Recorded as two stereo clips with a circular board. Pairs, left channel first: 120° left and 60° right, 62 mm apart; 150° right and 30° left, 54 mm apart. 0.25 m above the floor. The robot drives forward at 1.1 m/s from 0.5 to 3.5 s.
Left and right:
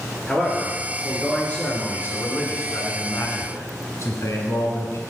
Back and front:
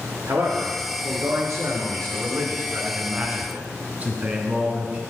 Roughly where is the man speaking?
Ahead left.